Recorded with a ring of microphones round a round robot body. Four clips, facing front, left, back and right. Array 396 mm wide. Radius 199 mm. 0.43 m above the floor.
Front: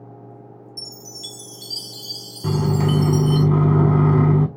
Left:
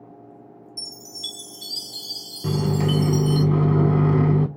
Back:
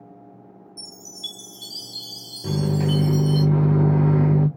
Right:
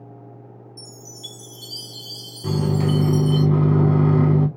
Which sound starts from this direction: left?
A chime, at 0.8 s.